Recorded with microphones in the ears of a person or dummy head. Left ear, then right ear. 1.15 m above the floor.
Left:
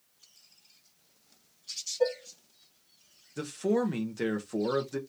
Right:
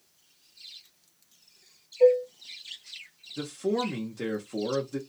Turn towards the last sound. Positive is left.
turn(degrees=20)  # may be behind; listen again after turning